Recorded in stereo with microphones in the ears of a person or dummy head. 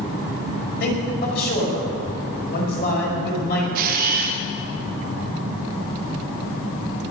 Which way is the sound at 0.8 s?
55° left (ahead or behind).